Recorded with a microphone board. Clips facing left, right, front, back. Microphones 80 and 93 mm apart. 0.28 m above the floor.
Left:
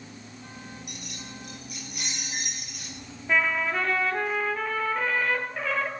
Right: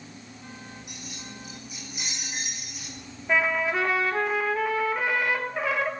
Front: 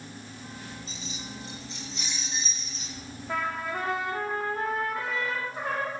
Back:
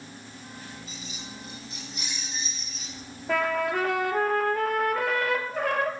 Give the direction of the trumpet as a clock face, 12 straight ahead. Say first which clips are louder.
Right 1 dB, back 6 dB; 6 o'clock.